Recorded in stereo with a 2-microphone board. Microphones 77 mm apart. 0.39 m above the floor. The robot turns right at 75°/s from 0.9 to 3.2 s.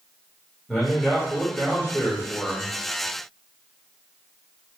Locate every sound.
0.7 s a man speaking: centre (ahead or behind), 1.1 m; by 2.7 s 20° left (ahead or behind), 1.1 m